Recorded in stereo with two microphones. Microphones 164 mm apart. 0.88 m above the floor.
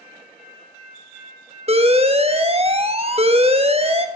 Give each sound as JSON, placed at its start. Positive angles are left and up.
{"t": 1.7, "sound": "an alarm", "side_deg": -40, "distance_m": 1.1}